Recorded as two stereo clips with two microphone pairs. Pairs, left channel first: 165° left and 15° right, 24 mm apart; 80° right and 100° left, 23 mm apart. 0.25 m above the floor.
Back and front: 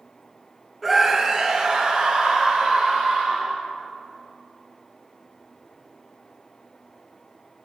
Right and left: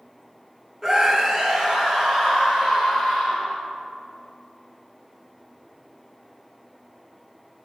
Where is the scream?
65° left, 0.9 m; by 3.5 s 35° left, 4.5 m.